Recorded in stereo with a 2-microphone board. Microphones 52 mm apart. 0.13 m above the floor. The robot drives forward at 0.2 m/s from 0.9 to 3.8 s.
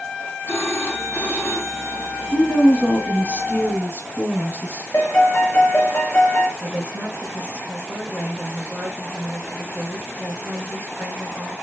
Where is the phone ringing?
50° left (ahead or behind), 3.5 m; by 2.2 s 55° left (ahead or behind), 3 m.